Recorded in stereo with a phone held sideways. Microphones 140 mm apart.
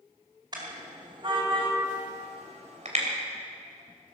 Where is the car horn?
35° right (ahead or behind), 4.5 m; by 3.0 s 60° right (ahead or behind), 3 m.